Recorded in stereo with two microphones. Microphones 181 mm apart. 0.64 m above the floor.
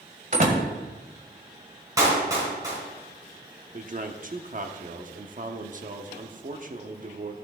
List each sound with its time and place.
0.3 s a door slam: 50° right (ahead or behind), 1.9 m
2.0 s a clap: 15° right (ahead or behind), 5.5 m
3.7 s a man speaking: 45° right (ahead or behind), 1.0 m